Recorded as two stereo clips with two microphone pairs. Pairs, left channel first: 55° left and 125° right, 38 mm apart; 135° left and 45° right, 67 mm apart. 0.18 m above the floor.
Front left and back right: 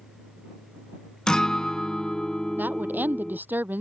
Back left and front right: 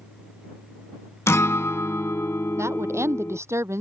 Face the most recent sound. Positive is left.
turn(degrees=-95)